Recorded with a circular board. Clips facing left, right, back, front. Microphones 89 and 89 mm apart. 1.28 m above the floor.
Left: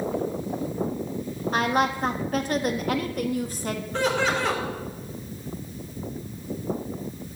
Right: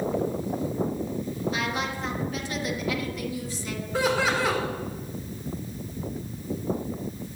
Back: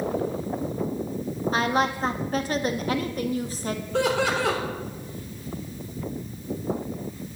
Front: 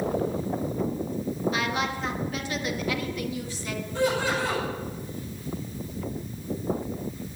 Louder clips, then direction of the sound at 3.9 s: Even, back 2 dB; 175° right.